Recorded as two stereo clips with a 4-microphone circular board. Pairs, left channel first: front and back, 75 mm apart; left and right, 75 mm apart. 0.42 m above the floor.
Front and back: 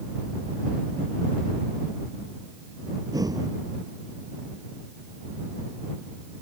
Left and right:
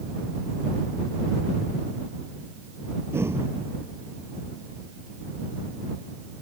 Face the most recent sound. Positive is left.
turn(degrees=-145)